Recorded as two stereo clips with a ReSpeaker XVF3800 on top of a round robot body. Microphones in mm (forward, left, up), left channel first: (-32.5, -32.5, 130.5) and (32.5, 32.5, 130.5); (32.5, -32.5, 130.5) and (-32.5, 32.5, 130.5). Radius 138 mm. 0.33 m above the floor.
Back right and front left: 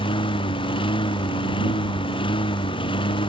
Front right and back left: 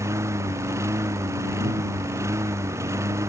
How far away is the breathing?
I don't hear breathing.